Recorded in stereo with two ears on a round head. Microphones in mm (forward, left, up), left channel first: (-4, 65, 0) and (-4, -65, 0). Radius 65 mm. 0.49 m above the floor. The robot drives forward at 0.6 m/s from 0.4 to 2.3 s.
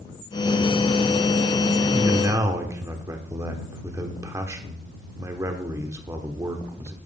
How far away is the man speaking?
About 1.3 m.